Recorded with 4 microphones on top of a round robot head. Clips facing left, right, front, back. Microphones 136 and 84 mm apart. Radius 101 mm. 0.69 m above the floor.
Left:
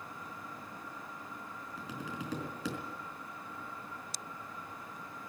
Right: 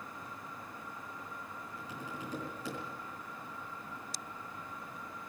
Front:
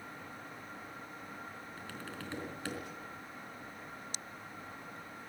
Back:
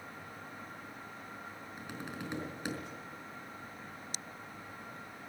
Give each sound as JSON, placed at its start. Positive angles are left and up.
{"t": 1.8, "sound": "tapping", "azimuth_deg": 105, "distance_m": 4.0}